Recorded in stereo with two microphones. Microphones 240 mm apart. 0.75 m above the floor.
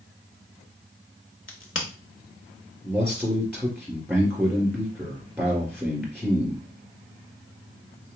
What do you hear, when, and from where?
1.5 s a crack: 60° left (ahead or behind), 1.0 m
2.8 s a man speaking: 5° left (ahead or behind), 2 m